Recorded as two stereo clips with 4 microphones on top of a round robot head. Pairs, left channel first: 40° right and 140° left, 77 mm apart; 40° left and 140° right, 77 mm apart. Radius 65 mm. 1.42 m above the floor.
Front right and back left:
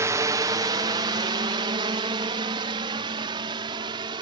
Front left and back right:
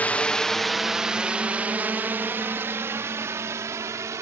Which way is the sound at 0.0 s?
100° left.